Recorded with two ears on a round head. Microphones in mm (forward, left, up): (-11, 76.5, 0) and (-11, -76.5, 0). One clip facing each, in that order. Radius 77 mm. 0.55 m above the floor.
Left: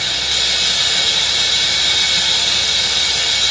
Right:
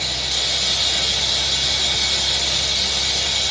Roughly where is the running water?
Left.